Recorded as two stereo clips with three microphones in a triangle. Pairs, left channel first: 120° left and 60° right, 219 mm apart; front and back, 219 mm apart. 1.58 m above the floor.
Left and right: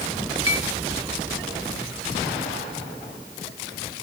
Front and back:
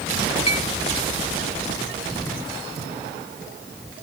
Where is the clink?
65° right, 1.7 m.